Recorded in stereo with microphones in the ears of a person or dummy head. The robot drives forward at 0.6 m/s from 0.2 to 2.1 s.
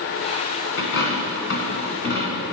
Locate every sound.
0.8 s a dropped coin: 60° left (ahead or behind), 2.5 m; by 2.4 s 55° left (ahead or behind), 3 m